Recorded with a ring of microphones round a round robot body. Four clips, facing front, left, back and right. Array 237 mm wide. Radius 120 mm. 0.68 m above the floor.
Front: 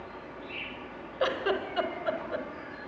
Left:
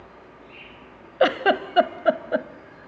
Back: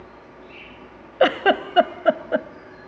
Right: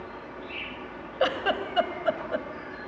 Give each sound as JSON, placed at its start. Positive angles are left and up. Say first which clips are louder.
{"t": 0.0, "sound": "an insect", "louder": "right 7 dB, front 1 dB", "azimuth_deg": -75, "distance_m": 1.9}
{"t": 1.2, "sound": "a giggle", "louder": "left 6 dB, back 11 dB", "azimuth_deg": 150, "distance_m": 0.8}